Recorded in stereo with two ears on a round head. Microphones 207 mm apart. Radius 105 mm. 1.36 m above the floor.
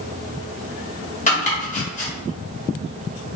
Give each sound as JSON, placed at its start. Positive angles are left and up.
{"t": 1.3, "sound": "chopping", "side_deg": 30, "distance_m": 1.9}